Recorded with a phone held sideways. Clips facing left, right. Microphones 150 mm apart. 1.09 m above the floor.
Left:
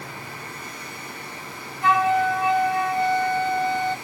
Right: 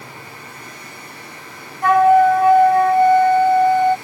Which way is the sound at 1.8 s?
55° right (ahead or behind).